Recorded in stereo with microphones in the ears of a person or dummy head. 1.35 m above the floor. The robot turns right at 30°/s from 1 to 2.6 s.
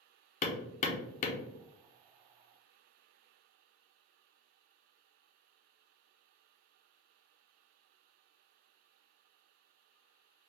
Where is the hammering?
40° left (ahead or behind), 0.6 m; by 1.4 s 45° left (ahead or behind), 0.6 m.